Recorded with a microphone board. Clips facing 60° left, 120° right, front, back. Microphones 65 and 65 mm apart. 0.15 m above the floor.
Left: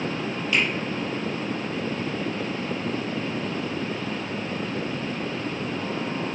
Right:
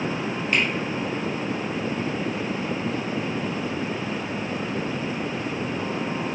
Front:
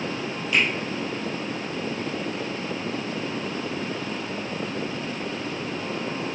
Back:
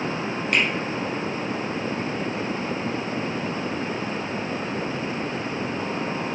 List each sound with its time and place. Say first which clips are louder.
0.5 s a finger snap: even, even; 155° right, 3 m